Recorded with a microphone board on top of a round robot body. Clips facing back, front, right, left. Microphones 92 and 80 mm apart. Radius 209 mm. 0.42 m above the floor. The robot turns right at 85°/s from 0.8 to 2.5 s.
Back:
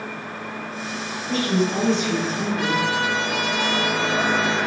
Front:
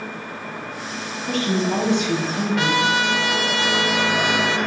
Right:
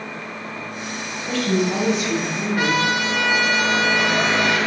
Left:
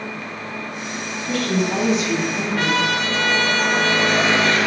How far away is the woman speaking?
About 4.5 m.